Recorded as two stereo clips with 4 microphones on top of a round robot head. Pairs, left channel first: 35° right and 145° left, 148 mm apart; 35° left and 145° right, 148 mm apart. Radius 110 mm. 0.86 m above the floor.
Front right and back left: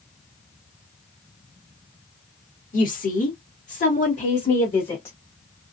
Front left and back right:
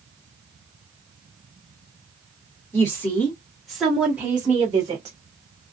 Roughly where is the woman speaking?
Ahead right.